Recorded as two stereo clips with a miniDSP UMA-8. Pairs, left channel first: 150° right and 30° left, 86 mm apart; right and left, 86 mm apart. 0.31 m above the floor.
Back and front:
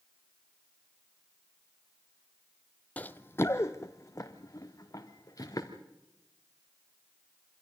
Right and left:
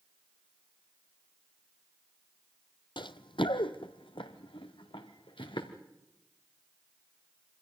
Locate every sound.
3.0 s running footsteps: 80° right, 0.6 m; by 5.8 s 100° right, 3 m